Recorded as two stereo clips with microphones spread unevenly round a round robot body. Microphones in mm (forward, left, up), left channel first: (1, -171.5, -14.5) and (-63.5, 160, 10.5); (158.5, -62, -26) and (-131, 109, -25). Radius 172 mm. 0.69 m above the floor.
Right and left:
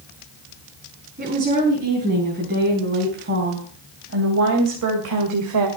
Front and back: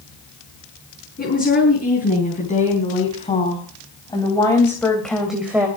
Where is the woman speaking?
35° left, 5.5 m; by 5.7 s 65° left, 2.5 m.